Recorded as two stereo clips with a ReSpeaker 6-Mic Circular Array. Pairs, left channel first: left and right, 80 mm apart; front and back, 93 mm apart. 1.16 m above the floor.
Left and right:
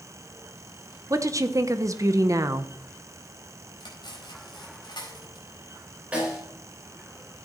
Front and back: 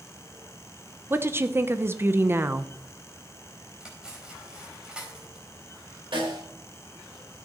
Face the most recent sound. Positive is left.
turn(degrees=-165)